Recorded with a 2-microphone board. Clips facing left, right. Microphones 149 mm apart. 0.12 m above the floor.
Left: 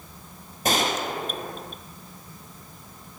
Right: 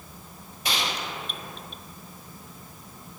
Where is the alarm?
No alarm in this recording.